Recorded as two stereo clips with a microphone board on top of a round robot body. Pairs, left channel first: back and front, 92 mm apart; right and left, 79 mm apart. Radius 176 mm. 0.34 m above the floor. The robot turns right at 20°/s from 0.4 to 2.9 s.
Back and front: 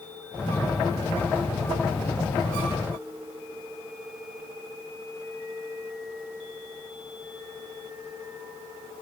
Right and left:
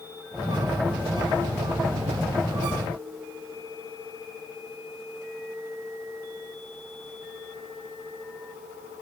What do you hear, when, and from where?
Only background noise.